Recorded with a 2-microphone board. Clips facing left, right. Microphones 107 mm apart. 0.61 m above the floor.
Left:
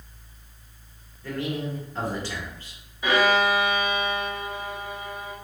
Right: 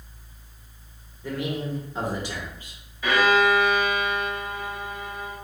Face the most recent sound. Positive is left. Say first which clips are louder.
# right 1 dB
turn(degrees=20)  # may be behind; listen again after turning